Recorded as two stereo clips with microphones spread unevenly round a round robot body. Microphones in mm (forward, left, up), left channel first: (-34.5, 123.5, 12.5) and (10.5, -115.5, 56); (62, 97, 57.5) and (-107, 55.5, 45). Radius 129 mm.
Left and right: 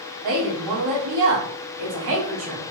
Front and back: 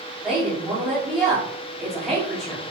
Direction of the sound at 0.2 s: 80° right.